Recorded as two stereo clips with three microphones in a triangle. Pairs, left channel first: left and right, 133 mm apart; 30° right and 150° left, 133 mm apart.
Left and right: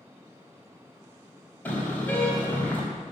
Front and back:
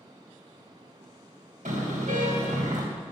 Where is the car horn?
165° left, 4 m.